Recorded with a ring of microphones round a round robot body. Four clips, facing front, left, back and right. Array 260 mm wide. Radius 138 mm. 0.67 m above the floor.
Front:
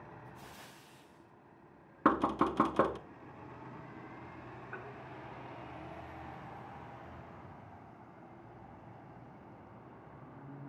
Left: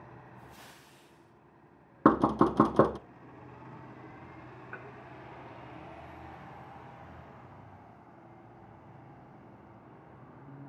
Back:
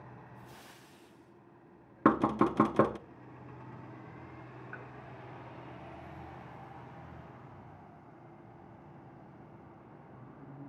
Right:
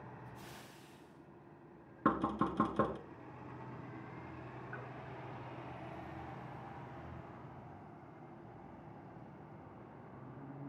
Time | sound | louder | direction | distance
2.0 | knocking | left 10 dB, back 3 dB | 110° left | 0.6 m
4.7 | dishes clattering | left 4 dB, front 2 dB | 95° left | 8 m